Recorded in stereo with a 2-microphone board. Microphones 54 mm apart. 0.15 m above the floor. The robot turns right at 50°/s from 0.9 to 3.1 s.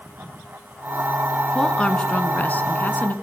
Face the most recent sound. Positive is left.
turn(degrees=100)